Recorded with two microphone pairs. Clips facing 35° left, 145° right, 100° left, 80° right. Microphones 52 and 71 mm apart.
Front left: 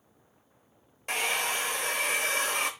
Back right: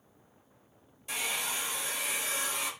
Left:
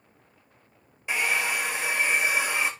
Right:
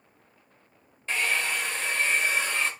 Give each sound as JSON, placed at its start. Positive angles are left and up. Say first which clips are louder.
{"t": 1.1, "sound": "a hair dryer", "louder": "front left 6 dB, left 1 dB", "azimuth_deg": 20, "distance_m": 1.1}